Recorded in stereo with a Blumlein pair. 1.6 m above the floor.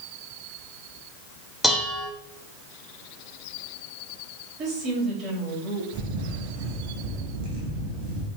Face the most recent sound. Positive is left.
turn(degrees=-40)